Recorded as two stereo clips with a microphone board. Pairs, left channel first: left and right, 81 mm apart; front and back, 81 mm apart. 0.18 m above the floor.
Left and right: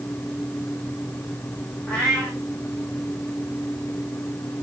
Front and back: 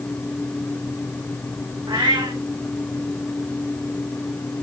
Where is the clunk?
I don't hear a clunk.